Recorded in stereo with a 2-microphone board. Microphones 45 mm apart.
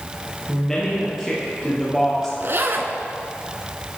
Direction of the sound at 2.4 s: 55° right (ahead or behind).